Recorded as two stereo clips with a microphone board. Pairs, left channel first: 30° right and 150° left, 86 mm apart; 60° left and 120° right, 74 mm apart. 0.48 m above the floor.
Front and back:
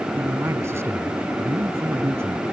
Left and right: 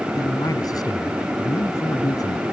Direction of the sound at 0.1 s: 90° left.